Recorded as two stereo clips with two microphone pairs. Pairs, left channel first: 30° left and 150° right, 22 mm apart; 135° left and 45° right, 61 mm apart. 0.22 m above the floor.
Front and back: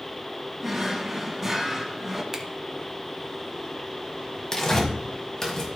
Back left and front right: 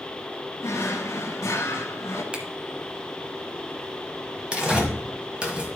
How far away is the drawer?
About 1.1 m.